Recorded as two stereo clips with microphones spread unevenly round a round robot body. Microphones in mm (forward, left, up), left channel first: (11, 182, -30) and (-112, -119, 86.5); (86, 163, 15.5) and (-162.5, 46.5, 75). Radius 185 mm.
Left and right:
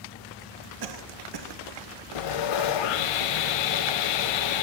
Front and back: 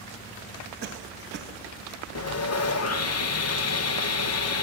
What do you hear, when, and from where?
0.8 s a cough: 100° right, 1.2 m
2.1 s sawing: 55° left, 0.7 m